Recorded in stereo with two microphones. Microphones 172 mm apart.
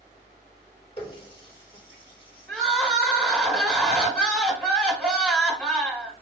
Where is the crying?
5° left (ahead or behind), 1.5 m.